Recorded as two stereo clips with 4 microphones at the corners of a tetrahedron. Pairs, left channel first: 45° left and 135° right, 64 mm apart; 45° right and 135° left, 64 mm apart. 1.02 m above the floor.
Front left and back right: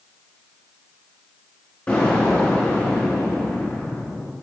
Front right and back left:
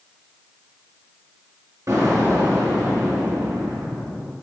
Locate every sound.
1.9 s an explosion: 105° left, 2.0 m